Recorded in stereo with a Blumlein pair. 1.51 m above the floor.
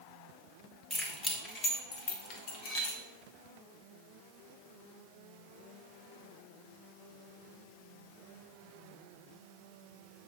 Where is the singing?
No singing in this recording.